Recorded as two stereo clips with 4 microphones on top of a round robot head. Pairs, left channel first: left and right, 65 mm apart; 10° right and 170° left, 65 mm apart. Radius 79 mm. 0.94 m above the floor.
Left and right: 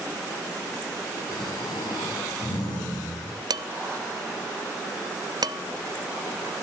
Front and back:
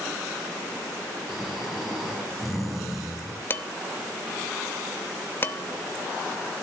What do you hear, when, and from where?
1.3 s snoring: 85° left, 7 m
3.5 s dishes clattering: 70° right, 0.7 m